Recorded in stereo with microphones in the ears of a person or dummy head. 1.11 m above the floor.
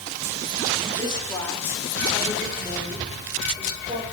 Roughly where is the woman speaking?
Left.